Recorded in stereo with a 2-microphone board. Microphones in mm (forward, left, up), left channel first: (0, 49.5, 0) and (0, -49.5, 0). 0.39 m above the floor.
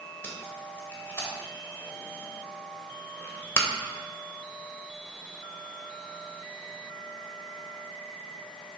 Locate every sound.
0.2 s tape being pulled: 25° left (ahead or behind), 1.4 m